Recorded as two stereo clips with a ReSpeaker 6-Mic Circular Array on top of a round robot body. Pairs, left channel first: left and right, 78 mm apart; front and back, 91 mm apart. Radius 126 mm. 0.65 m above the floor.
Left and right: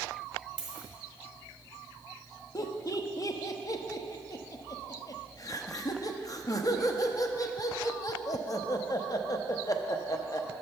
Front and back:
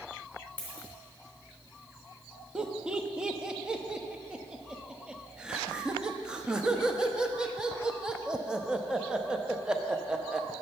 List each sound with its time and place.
0.6 s a dropped coin: 70° right, 1.3 m
2.5 s laughter: 100° left, 0.8 m